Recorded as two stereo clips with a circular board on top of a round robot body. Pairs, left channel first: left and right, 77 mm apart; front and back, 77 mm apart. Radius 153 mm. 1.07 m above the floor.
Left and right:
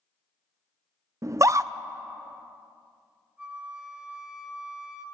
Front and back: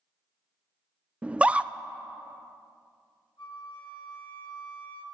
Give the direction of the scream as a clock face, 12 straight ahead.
4 o'clock.